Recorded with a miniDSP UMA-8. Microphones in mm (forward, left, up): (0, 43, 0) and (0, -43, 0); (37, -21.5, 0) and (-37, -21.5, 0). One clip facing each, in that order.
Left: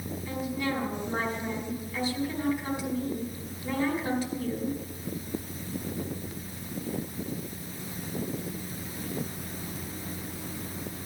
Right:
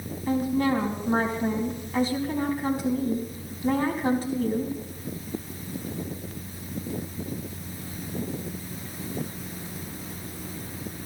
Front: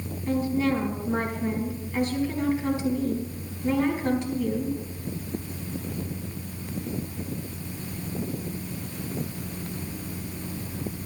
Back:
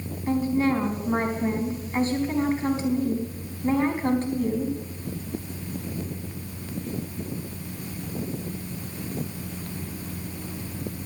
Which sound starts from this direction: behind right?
A woman speaking, at 0.3 s.